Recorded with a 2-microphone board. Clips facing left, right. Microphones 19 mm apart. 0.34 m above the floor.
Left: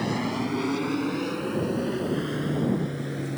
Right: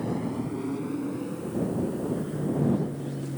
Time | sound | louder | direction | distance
0.0 | an aircraft | left 3 dB | 60° left (ahead or behind) | ?